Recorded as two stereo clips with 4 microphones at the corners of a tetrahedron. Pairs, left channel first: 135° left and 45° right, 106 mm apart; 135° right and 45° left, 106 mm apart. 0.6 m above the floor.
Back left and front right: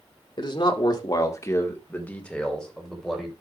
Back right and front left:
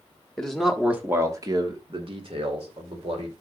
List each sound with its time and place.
0.4 s a man speaking: 145° left, 1.6 m; by 3.3 s 45° left, 3 m